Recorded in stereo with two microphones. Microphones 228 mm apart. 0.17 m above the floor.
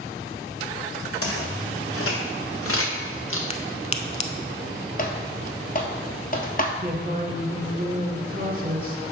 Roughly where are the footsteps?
Left.